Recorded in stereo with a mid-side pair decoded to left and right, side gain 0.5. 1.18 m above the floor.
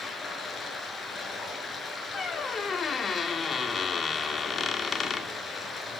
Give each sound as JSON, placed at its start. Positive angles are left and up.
{"t": 0.0, "sound": "running water", "azimuth_deg": 30, "distance_m": 5.5}
{"t": 2.1, "sound": "a squeak", "azimuth_deg": 40, "distance_m": 2.0}